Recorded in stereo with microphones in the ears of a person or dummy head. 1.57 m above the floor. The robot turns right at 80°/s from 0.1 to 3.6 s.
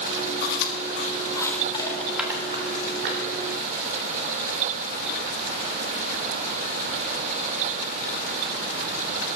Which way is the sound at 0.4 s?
55° left (ahead or behind).